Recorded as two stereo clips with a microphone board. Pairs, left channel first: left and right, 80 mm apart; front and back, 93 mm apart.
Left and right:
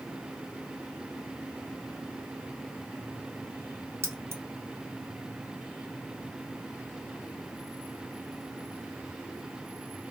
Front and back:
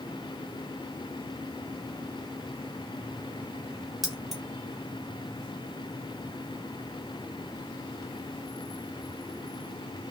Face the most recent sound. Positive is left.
turn(degrees=-95)